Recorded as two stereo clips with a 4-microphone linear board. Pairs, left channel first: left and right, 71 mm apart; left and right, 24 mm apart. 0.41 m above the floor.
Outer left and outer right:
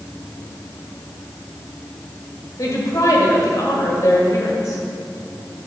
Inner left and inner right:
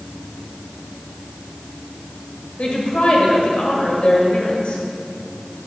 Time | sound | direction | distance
2.6 | a woman speaking | 50° left (ahead or behind) | 1.9 m